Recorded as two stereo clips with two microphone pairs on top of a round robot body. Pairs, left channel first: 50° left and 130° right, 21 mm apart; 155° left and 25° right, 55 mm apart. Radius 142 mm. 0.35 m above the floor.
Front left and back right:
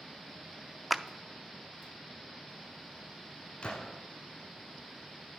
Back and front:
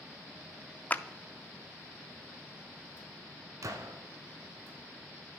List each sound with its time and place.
0.9 s a clap: 145° left, 0.7 m
3.6 s a gunshot: 5° left, 1.1 m